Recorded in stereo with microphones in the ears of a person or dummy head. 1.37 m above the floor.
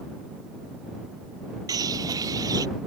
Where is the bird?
20° right (ahead or behind).